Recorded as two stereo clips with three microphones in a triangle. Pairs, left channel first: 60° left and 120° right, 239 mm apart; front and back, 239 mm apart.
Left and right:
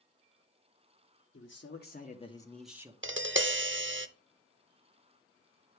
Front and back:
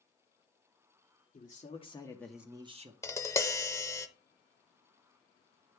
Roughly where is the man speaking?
Ahead left.